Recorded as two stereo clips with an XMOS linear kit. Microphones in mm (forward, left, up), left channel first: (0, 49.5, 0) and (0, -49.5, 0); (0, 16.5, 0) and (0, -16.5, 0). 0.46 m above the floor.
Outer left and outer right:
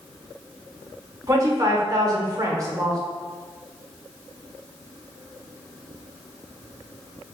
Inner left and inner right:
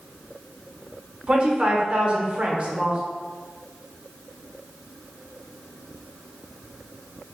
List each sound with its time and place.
1.3 s a woman speaking: 35° right (ahead or behind), 1.1 m